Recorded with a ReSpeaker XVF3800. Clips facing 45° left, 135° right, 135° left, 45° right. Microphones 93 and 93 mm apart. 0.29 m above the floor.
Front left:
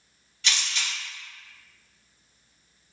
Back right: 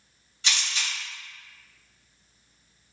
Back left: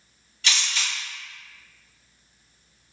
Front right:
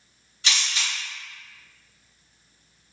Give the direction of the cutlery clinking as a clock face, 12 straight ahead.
I don't hear cutlery clinking.